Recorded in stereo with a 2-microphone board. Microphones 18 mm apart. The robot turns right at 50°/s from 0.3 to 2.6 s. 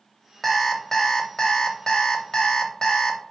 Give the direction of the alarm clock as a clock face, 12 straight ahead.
12 o'clock.